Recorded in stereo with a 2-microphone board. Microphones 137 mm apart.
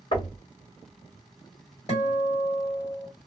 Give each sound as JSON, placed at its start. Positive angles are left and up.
{"t": 0.1, "sound": "knocking", "side_deg": 40, "distance_m": 1.7}
{"t": 1.9, "sound": "a guitar", "side_deg": 55, "distance_m": 1.6}